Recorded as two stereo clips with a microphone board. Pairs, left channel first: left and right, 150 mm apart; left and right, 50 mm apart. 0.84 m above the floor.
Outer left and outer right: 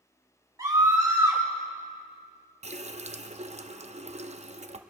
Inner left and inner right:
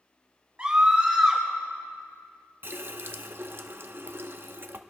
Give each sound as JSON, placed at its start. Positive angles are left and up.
{"t": 0.6, "sound": "a scream", "side_deg": -25, "distance_m": 3.5}
{"t": 2.6, "sound": "a running tap", "side_deg": -45, "distance_m": 0.6}